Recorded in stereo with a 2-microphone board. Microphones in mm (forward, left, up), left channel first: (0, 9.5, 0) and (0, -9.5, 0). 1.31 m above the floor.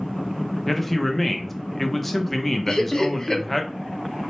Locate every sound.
0.7 s a man speaking: 5° left (ahead or behind), 0.6 m
2.7 s laughter: 30° left (ahead or behind), 0.5 m